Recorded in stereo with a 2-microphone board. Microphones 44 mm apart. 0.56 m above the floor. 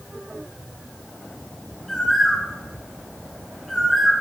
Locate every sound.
1.9 s a bird: 10° left (ahead or behind), 4 m